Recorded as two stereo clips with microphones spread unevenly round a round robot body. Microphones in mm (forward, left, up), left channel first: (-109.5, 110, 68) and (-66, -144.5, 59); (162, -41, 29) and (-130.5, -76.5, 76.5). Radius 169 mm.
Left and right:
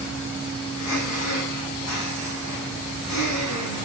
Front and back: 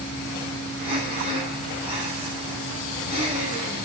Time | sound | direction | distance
0.8 | breathing | 100° left | 7 m